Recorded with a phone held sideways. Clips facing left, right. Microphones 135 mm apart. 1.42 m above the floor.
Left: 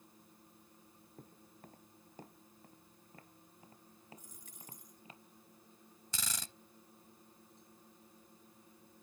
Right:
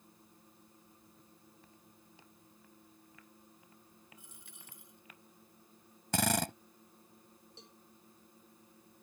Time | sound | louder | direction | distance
1.2 | footsteps | left 4 dB | 55° left (ahead or behind) | ?
4.2 | a dropped coin | left 1 dB | 40° left (ahead or behind) | ?
6.1 | a drill | right 17 dB | 65° right (ahead or behind) | ?
7.6 | a cowbell | right 3 dB | 80° right | ?